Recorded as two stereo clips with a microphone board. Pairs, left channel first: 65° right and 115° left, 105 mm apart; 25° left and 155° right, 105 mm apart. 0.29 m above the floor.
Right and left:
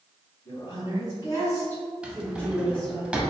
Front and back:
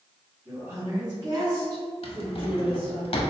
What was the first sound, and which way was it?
A woman speaking, 85° right.